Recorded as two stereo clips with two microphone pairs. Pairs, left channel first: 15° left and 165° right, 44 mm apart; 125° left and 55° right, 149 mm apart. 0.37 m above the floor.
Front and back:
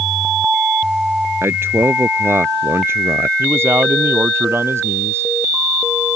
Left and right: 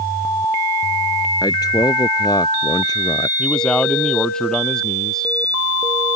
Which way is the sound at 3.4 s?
150° right.